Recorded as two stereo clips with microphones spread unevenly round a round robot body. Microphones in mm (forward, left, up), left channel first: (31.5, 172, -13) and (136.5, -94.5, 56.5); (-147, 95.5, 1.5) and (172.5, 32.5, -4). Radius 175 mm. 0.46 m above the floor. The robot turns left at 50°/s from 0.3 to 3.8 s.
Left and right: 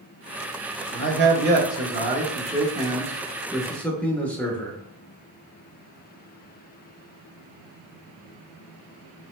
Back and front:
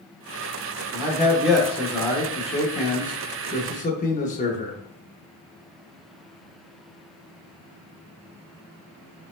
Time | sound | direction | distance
0.9 | a man speaking | 70° right | 0.9 m